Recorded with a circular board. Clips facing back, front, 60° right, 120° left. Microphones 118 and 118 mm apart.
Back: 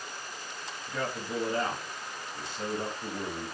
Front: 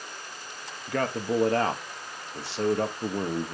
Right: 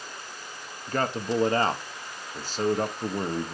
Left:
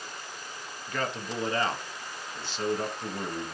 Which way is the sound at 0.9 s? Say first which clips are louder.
Front 7 dB, right 6 dB; 10° right.